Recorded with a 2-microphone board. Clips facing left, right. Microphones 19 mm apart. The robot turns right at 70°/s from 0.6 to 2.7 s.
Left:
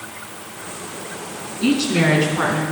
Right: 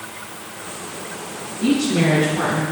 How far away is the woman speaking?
About 3.5 m.